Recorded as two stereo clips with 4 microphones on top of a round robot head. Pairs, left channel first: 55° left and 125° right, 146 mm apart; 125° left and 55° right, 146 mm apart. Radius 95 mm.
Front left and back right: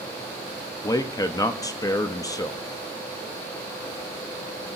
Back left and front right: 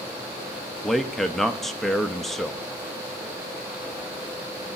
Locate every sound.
0.8 s a man speaking: 35° left, 0.7 m